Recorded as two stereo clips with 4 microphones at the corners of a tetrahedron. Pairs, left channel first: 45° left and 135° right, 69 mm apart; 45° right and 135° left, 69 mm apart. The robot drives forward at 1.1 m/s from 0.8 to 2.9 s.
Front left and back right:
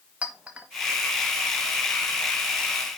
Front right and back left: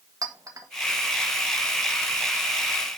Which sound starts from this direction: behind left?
A clink, at 0.2 s.